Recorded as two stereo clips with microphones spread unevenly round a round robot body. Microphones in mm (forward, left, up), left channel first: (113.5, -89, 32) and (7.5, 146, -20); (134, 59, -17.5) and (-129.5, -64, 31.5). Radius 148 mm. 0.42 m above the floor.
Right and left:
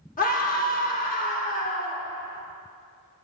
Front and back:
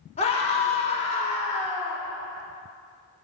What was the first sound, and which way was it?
A scream, 10° right.